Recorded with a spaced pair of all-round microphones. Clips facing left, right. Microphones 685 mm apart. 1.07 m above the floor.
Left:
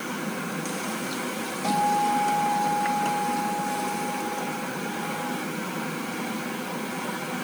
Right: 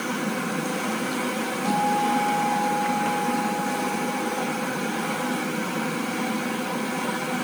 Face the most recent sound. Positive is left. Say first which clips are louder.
# right 1 dB
turn(degrees=5)  # may be behind; listen again after turning